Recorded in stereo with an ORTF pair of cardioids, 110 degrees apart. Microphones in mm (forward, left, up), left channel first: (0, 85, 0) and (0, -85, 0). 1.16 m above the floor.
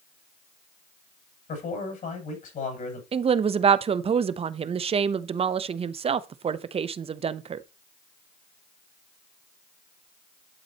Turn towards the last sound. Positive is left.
turn(degrees=-35)